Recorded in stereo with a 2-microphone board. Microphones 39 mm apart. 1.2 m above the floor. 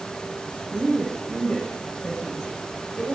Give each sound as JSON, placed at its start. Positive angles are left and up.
{"t": 0.7, "sound": "a woman speaking", "side_deg": 30, "distance_m": 5.5}